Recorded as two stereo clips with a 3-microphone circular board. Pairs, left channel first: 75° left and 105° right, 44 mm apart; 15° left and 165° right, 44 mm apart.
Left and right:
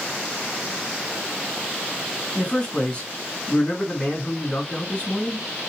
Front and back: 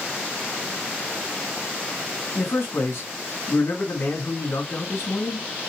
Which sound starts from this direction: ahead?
A man speaking, at 2.4 s.